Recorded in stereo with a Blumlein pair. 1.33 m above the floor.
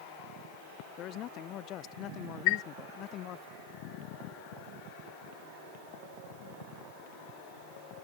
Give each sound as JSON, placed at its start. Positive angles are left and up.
{"t": 1.0, "sound": "a man speaking", "azimuth_deg": 35}
{"t": 2.5, "sound": "a chime", "azimuth_deg": 45}